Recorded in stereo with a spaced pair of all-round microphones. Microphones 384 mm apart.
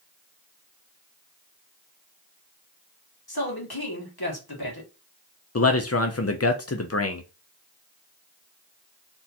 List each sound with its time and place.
3.3 s a man speaking: 70° left (ahead or behind), 2.0 m
5.5 s a man speaking: 40° left (ahead or behind), 0.6 m